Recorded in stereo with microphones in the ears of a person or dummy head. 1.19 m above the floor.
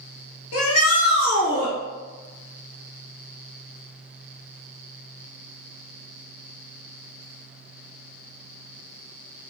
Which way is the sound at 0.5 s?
80° left.